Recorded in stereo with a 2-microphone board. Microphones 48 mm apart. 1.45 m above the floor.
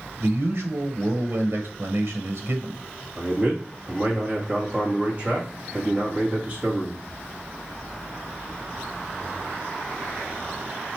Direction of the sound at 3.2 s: 30° right (ahead or behind).